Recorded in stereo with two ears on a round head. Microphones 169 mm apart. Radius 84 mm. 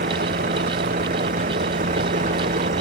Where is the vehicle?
50° right (ahead or behind); by 2.8 s 45° right (ahead or behind).